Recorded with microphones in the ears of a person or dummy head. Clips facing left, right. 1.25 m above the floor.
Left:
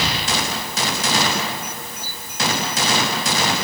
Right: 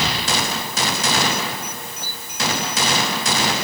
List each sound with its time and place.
Only background noise.